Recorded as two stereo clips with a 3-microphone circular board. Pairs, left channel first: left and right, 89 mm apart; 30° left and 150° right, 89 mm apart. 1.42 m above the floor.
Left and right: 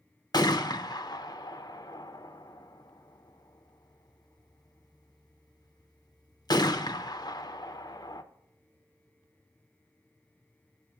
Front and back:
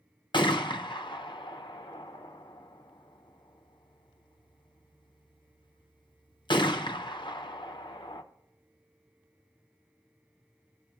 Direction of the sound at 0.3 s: 55° left.